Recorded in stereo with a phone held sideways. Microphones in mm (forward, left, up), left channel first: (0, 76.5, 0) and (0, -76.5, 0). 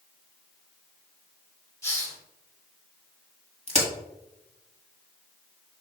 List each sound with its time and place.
1.8 s a hiss: 15° left (ahead or behind), 1.2 m
3.7 s a crack: 45° right (ahead or behind), 1.4 m